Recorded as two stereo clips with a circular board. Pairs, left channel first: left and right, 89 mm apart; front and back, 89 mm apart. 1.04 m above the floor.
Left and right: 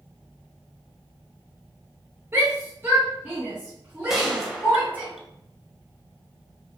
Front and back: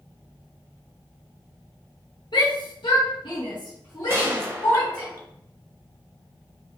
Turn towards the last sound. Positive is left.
turn(degrees=-170)